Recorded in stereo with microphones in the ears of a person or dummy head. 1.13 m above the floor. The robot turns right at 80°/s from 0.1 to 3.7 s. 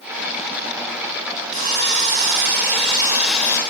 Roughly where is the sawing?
Behind right.